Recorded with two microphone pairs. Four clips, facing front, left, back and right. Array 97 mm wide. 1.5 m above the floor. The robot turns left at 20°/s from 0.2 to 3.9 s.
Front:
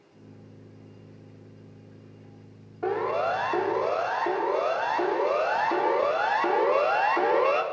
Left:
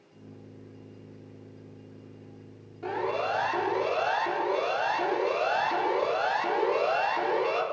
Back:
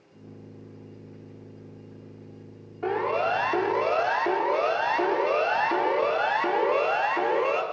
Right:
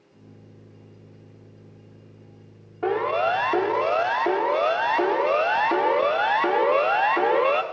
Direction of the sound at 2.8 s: 75° right.